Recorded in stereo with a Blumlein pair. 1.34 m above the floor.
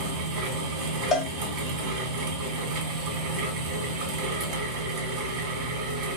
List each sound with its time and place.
0.0 s a fan: 45° right, 1.4 m
1.1 s a cowbell: 20° left, 0.9 m